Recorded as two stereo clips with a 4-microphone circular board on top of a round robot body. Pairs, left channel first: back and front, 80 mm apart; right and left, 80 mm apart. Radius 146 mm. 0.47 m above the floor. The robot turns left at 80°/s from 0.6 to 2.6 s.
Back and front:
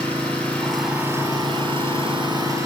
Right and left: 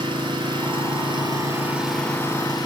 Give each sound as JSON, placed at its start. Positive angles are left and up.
{"t": 0.0, "sound": "an engine running", "azimuth_deg": 105, "distance_m": 5.0}